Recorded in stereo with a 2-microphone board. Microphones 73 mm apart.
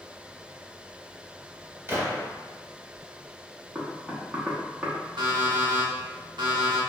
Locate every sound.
1.9 s a gunshot: 30° right (ahead or behind), 0.9 m
3.8 s knocking: 20° right (ahead or behind), 0.6 m
5.2 s an alarm clock: 80° right, 0.7 m